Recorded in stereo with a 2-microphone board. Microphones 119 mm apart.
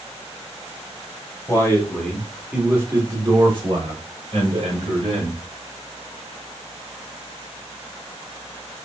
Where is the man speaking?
25° left (ahead or behind), 1.3 m; by 5.4 s 65° right (ahead or behind), 2.5 m.